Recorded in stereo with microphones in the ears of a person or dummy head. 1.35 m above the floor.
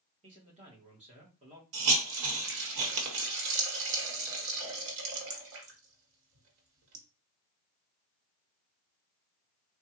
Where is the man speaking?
35° right (ahead or behind), 1.2 m.